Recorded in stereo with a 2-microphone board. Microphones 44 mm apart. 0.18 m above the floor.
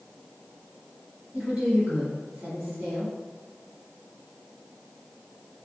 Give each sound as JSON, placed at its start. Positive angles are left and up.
{"t": 1.3, "sound": "a woman speaking", "side_deg": -10, "distance_m": 1.5}